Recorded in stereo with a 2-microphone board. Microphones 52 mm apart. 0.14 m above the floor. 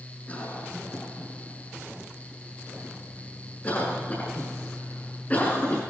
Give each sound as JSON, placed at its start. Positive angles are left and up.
{"t": 0.3, "sound": "a cough", "side_deg": 30, "distance_m": 7.0}